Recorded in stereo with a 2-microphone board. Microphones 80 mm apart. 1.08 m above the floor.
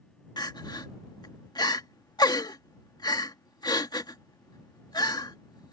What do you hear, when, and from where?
0.4 s crying: 60° left (ahead or behind)